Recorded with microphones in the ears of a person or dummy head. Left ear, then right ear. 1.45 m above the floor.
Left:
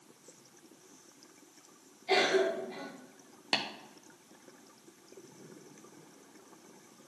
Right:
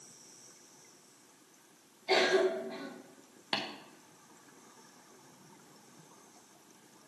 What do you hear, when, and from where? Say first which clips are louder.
2.1 s a cough: even; 15° right (ahead or behind), 1.7 m
3.5 s tapping: left 3 dB; 10° left (ahead or behind), 0.7 m